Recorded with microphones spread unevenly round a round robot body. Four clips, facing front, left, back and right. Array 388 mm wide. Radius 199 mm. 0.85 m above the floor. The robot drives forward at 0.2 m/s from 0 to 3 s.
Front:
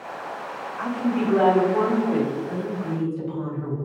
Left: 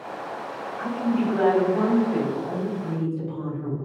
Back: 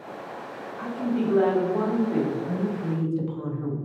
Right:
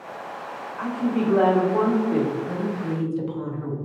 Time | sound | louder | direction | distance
0.8 | a woman speaking | even, front 3 dB | 70° right | 1.5 m
2.3 | a woman speaking | right 1 dB, even | 130° right | 0.7 m